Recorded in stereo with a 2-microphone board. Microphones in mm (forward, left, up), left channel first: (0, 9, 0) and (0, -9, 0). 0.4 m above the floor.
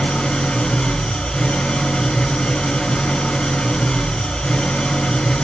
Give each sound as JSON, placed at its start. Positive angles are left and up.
{"t": 0.0, "sound": "an engine running", "side_deg": 60, "distance_m": 3.5}